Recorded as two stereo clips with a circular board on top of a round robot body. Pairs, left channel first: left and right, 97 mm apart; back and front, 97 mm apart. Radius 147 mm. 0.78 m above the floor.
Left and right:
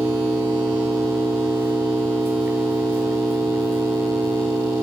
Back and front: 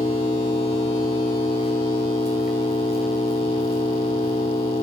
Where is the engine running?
160° right, 0.7 m.